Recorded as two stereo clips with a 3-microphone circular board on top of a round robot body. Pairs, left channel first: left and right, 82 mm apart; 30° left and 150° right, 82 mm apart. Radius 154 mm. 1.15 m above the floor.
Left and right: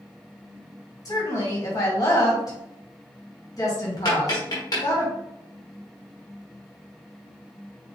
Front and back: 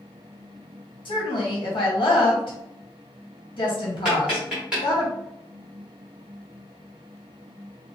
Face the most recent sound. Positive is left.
turn(degrees=130)